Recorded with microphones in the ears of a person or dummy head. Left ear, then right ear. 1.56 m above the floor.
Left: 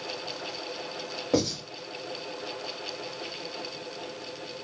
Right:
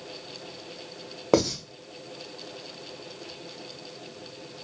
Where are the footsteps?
I don't hear footsteps.